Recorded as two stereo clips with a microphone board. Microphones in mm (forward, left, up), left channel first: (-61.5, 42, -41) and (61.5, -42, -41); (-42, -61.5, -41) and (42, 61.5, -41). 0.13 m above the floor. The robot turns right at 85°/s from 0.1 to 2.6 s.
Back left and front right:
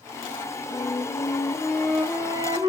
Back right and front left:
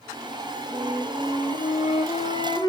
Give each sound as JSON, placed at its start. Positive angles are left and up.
{"t": 0.7, "sound": "a flute", "azimuth_deg": 130, "distance_m": 0.9}